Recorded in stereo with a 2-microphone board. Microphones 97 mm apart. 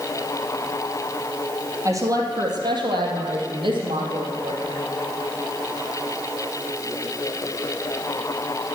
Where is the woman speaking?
35° right (ahead or behind), 2.5 m; by 4.8 s 75° right (ahead or behind), 4 m.